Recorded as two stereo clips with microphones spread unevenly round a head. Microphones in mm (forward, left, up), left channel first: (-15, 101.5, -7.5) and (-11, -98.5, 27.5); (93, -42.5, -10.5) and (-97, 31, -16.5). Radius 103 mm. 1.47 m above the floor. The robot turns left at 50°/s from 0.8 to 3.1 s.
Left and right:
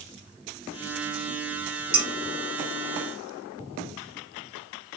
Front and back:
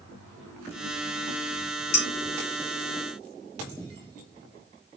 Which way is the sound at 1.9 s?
25° right.